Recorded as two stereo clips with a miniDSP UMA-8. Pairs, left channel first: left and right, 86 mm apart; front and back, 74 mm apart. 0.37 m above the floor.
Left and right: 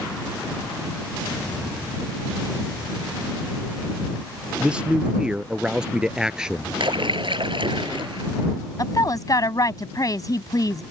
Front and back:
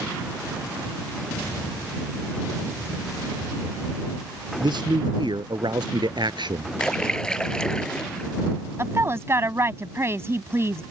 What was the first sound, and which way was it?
A man speaking, 170° right.